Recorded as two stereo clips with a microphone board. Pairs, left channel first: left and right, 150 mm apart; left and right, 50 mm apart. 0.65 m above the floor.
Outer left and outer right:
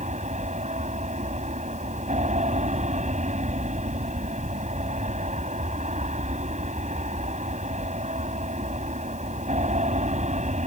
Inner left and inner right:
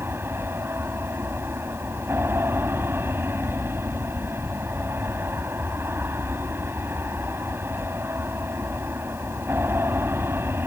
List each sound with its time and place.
0.0 s an aircraft: 45° right (ahead or behind)